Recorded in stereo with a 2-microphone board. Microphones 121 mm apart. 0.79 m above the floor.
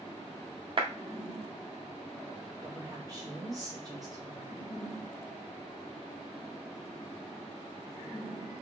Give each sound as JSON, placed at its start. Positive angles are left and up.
{"t": 0.8, "sound": "a clap", "side_deg": -45, "distance_m": 0.8}
{"t": 2.6, "sound": "a woman speaking", "side_deg": -30, "distance_m": 1.8}